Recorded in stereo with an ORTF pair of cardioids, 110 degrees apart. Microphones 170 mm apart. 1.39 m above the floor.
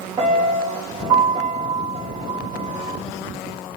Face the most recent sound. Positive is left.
turn(degrees=-30)